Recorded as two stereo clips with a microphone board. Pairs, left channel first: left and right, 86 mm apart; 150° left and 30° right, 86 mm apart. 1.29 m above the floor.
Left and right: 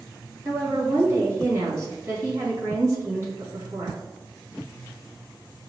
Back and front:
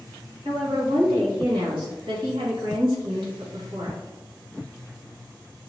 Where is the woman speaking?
35° right, 2 m.